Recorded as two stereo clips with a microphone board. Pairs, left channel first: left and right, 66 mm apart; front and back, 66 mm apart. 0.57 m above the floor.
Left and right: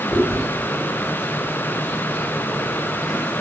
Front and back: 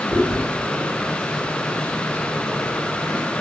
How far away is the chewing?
About 2.0 m.